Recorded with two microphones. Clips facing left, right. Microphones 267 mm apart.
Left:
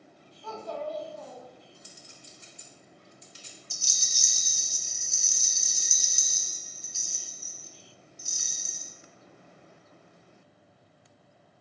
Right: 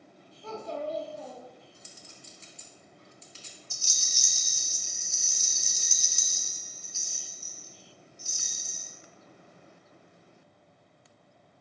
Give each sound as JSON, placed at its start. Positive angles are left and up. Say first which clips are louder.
{"t": 0.4, "sound": "a child speaking", "louder": "right 1 dB", "side_deg": -25, "distance_m": 0.7}
{"t": 1.8, "sound": "a clink", "louder": "even", "side_deg": 15, "distance_m": 0.7}
{"t": 3.7, "sound": "a rattle", "louder": "even", "side_deg": 40, "distance_m": 0.6}